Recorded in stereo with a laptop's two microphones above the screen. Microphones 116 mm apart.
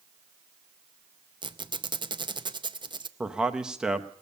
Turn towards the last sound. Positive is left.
turn(degrees=-5)  # may be behind; listen again after turning